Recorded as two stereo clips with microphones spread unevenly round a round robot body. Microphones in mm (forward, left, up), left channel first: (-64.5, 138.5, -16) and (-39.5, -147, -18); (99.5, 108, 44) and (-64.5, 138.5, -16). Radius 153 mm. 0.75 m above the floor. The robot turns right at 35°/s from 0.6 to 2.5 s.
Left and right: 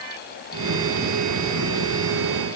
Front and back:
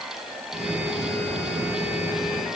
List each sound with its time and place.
Only background noise.